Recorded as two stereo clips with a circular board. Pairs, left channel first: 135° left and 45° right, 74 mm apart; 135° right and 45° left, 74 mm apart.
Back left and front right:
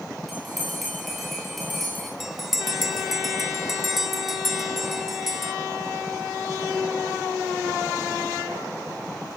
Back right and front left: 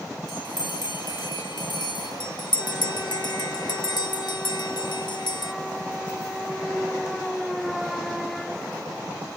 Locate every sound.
0.3 s a bell: 135° right, 9.5 m
2.2 s a bell: 130° right, 0.8 m